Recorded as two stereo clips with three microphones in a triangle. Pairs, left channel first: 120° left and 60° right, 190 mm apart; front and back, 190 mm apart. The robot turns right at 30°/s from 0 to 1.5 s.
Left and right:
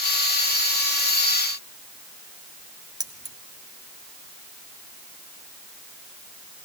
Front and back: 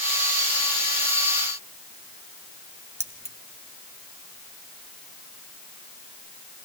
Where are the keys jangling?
130° right, 1.2 m.